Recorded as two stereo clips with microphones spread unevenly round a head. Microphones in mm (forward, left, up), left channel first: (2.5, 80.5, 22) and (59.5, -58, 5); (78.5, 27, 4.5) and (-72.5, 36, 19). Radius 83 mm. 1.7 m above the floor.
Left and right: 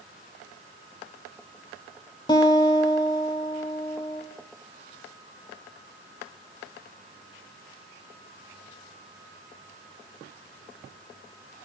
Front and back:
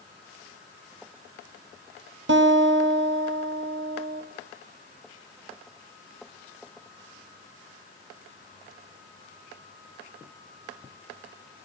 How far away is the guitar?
About 1.1 m.